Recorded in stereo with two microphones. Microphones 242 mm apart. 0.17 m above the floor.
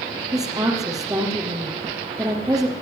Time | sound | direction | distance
0.3 | a woman speaking | 15° right (ahead or behind) | 5.5 m